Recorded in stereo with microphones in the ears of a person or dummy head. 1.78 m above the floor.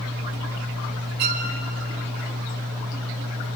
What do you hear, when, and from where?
1.2 s a violin: 55° right (ahead or behind), 2 m